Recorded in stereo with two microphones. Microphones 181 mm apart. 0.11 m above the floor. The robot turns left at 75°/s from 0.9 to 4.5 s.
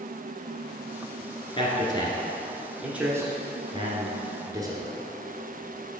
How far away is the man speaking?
About 1.5 m.